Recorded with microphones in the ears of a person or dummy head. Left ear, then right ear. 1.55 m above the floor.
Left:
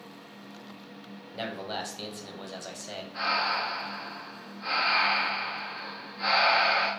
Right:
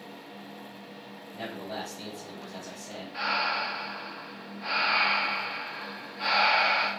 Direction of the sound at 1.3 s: 55° left (ahead or behind).